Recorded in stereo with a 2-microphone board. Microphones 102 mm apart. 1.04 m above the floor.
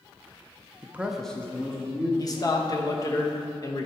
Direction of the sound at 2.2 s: 35° left (ahead or behind).